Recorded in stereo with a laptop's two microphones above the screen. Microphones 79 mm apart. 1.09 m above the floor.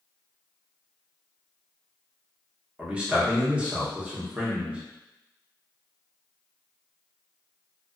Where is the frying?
No frying in this recording.